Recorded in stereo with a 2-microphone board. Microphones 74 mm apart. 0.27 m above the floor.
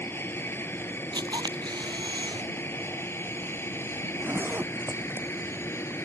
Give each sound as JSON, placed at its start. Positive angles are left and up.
{"t": 0.0, "sound": "an aircraft", "side_deg": 30}
{"t": 1.1, "sound": "a camera shutter", "side_deg": -70}
{"t": 4.0, "sound": "a zipper", "side_deg": -25}